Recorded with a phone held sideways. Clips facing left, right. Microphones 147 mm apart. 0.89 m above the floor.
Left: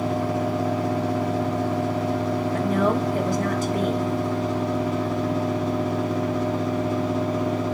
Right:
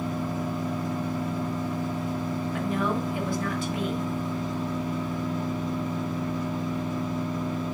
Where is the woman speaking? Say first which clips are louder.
Left 6 dB; 45° left (ahead or behind), 1.8 m.